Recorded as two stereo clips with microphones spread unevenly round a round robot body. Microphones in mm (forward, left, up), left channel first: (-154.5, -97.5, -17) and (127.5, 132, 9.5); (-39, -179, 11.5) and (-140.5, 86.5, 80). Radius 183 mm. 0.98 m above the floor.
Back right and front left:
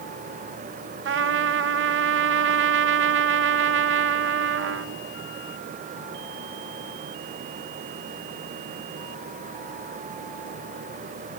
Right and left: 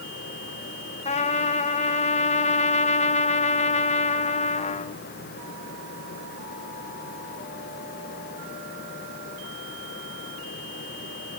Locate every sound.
1.1 s a trumpet: 15° right, 1.0 m